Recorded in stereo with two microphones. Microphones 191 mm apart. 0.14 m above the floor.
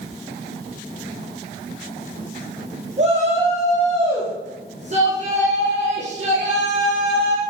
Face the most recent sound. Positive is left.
turn(degrees=-35)  # may be behind; listen again after turning